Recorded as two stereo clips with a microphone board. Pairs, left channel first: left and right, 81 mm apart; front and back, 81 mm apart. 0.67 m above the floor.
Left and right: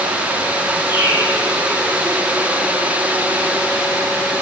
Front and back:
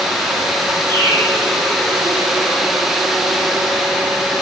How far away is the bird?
About 7 m.